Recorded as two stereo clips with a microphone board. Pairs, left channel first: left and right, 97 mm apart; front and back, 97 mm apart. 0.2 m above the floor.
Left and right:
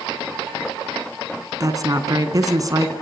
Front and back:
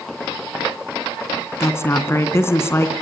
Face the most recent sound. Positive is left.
turn(degrees=-55)